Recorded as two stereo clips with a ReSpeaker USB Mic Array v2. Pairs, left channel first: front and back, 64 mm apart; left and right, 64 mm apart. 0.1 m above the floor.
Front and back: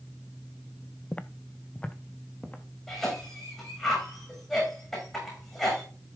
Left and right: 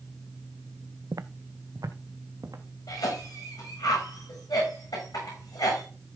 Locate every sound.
1.1 s footsteps: 70° right, 0.6 m
2.9 s a cough: 80° left, 7 m